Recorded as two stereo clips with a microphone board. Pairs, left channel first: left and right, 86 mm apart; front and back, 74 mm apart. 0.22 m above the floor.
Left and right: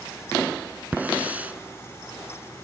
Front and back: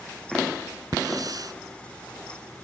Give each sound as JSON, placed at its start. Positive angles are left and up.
{"t": 0.9, "sound": "a hiss", "azimuth_deg": -160}